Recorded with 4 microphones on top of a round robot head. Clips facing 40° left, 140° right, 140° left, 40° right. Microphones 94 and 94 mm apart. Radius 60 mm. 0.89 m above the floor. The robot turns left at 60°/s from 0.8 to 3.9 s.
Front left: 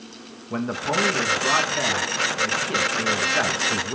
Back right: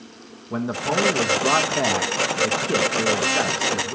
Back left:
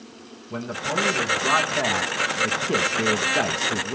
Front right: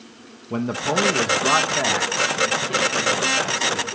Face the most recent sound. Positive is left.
turn(degrees=110)